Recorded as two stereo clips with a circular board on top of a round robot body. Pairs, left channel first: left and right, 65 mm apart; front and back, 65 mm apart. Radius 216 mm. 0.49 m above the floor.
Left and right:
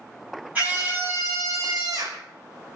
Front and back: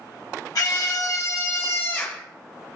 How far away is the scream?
About 2.5 m.